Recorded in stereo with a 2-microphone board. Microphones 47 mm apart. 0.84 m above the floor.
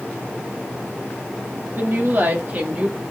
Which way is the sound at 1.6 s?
60° right (ahead or behind).